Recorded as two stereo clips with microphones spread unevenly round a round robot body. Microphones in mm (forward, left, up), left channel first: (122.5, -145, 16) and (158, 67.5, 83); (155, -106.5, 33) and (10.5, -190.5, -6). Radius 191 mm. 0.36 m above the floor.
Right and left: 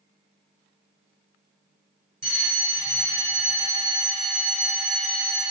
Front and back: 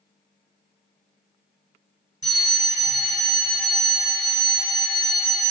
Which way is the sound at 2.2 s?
140° left.